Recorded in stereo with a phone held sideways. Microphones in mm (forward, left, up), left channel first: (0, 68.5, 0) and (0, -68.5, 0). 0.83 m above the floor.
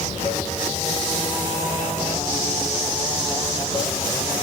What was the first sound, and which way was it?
Running water, 70° left (ahead or behind).